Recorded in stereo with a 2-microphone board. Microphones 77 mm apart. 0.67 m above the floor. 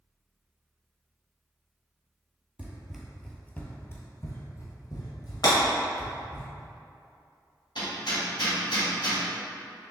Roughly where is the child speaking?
No child speaking in this recording.